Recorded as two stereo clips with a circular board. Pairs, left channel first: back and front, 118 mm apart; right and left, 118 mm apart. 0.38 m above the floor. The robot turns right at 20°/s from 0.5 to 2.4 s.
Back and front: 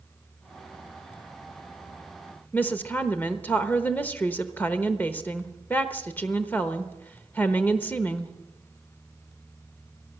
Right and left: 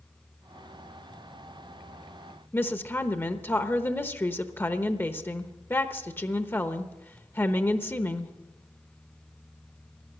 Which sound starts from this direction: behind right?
A woman speaking, at 2.5 s.